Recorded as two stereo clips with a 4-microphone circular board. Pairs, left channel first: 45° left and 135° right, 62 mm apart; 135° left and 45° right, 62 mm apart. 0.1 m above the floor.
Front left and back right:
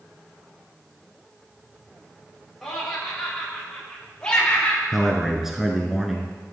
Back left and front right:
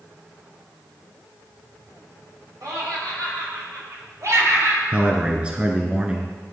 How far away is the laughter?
About 5.5 m.